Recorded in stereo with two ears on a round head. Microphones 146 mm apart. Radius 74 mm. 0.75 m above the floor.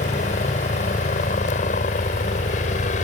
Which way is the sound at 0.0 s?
45° left (ahead or behind).